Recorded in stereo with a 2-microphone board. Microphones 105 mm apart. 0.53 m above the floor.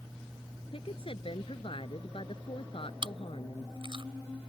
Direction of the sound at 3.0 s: 55° right (ahead or behind).